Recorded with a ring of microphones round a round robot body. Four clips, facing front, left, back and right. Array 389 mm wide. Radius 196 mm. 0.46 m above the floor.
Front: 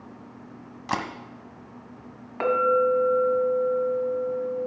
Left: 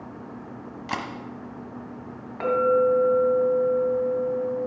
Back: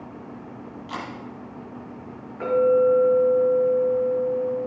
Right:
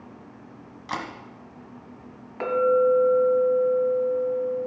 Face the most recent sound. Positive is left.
turn(degrees=-5)